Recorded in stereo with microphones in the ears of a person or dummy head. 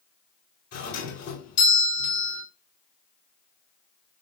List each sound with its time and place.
0.7 s a doorbell: 50° left (ahead or behind), 2.5 m